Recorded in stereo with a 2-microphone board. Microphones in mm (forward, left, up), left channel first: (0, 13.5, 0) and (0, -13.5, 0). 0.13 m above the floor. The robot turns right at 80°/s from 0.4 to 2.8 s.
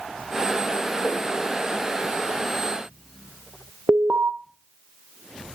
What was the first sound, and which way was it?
A whoosh, 80° left.